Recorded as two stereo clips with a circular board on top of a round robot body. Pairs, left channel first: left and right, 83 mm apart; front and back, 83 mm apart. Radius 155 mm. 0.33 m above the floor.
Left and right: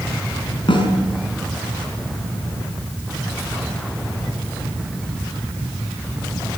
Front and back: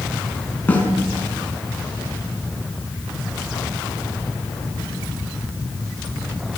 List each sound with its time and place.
0.7 s a snare drum: 70° left, 6 m